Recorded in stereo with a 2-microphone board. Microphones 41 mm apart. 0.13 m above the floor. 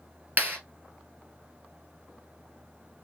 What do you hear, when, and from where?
0.4 s a clap: 45° right (ahead or behind), 1.8 m